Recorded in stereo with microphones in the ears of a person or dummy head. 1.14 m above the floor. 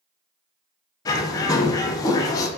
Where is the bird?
20° left (ahead or behind), 0.6 m.